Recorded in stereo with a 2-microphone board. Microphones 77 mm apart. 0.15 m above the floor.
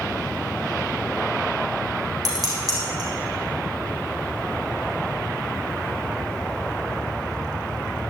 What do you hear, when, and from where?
2.2 s dishes clattering: 55° right (ahead or behind), 5 m